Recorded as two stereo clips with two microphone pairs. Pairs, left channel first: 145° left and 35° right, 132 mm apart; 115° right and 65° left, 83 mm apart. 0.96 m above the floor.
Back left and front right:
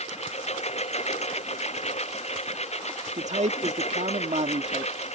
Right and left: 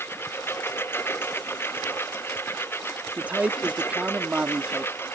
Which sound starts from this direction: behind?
A lawn mower, at 0.0 s.